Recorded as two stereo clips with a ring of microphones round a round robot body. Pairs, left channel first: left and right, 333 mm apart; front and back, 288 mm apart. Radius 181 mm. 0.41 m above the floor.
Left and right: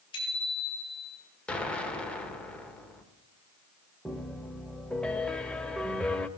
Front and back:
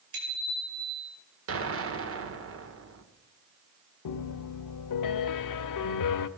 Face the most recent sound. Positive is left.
turn(degrees=5)